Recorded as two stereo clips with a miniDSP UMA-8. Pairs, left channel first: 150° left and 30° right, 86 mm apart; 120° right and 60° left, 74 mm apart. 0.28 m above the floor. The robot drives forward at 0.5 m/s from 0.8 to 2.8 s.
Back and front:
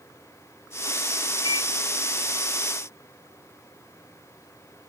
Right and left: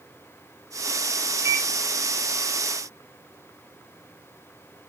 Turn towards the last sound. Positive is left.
turn(degrees=120)